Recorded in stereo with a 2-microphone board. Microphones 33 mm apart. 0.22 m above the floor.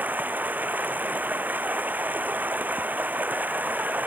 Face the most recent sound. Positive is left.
turn(degrees=-55)  # may be behind; listen again after turning